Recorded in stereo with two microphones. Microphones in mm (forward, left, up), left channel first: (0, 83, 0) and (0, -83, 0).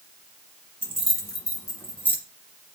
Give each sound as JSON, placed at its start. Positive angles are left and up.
{"t": 0.8, "sound": "keys jangling", "side_deg": 35, "distance_m": 1.2}